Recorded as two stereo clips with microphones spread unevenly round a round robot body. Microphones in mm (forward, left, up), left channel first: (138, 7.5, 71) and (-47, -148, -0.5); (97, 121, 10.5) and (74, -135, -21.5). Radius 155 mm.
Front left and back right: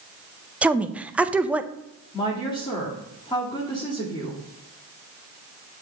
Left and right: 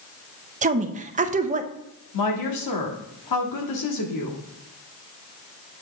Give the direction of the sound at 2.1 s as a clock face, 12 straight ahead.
8 o'clock.